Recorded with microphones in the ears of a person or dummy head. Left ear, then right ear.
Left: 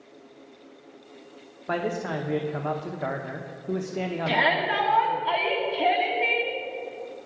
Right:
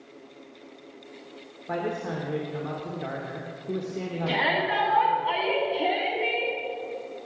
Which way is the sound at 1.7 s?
80° left.